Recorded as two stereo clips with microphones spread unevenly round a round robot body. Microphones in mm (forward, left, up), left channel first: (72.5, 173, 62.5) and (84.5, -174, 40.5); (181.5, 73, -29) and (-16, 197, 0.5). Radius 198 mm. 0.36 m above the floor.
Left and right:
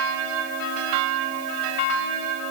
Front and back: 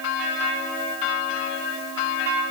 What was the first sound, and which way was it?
Only background noise.